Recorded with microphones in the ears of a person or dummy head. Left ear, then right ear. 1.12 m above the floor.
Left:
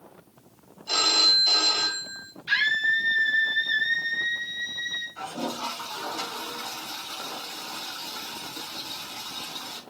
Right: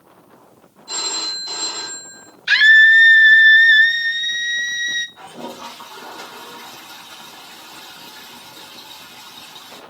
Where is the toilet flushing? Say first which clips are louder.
Left 1 dB; 85° left, 6 m.